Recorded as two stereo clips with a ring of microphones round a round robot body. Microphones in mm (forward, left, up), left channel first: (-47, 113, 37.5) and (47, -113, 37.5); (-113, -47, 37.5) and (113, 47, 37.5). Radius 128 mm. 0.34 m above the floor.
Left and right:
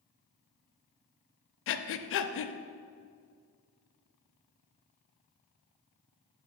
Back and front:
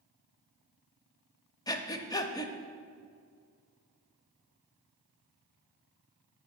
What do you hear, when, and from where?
1.7 s breathing: 130° left, 0.5 m